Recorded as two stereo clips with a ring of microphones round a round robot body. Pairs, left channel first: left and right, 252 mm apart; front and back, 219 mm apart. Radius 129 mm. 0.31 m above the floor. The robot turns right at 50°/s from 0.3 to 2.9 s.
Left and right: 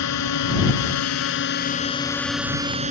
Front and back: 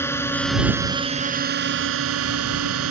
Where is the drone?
80° left; by 2.9 s 150° right.